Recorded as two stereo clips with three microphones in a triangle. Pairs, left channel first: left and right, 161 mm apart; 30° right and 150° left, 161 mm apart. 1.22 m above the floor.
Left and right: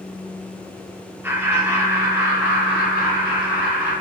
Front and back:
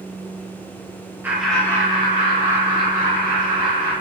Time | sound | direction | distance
1.2 | laughter | 145° right | 0.6 m